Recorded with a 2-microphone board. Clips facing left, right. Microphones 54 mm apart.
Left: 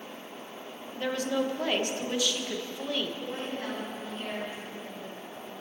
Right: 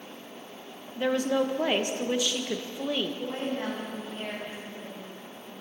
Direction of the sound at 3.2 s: 35° right (ahead or behind).